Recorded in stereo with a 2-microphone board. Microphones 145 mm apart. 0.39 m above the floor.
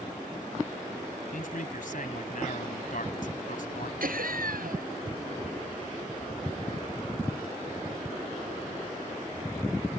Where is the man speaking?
70° left (ahead or behind).